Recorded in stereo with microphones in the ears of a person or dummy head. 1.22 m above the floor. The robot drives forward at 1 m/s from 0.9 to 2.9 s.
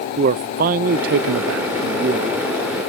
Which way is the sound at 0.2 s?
45° right (ahead or behind).